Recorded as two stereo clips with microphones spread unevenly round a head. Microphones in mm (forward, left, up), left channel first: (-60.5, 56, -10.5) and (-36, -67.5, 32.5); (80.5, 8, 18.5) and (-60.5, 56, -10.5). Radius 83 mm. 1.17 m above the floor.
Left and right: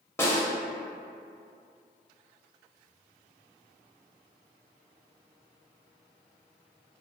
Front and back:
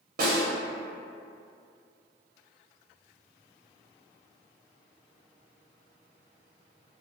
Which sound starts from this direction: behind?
A snare drum, at 0.2 s.